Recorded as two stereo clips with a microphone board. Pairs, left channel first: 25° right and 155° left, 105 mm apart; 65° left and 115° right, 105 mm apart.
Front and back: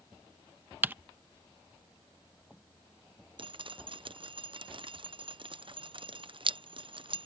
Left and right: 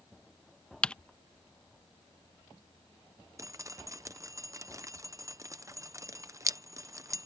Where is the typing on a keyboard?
130° left.